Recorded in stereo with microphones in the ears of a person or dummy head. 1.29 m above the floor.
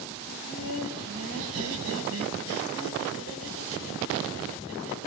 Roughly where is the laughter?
Right.